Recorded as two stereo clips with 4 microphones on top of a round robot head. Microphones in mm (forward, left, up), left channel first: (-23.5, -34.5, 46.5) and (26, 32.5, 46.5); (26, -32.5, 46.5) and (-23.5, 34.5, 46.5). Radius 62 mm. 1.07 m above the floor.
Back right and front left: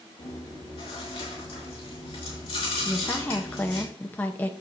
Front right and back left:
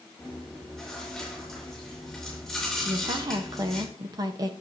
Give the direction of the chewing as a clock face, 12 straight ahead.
5 o'clock.